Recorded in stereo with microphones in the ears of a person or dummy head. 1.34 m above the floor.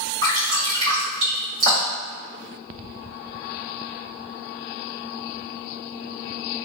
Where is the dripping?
75° right (ahead or behind), 1.7 m.